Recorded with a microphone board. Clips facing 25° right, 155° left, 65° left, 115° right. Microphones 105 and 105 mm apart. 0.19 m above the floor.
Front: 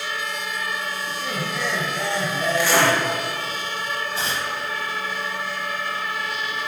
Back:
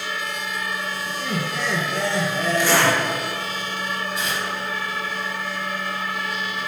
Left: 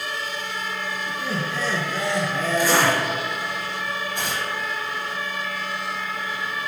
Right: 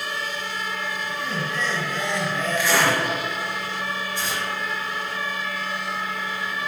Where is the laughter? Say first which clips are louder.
Back 1 dB, left 2 dB; 120° left, 3 m.